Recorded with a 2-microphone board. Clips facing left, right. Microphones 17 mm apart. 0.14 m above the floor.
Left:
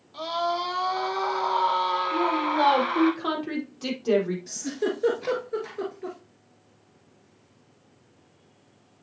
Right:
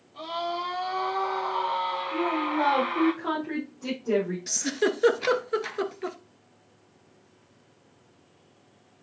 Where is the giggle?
50° right (ahead or behind), 1.1 m.